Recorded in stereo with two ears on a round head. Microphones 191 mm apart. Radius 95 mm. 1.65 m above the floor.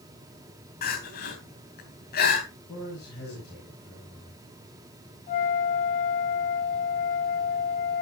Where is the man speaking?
45° left (ahead or behind), 8 m.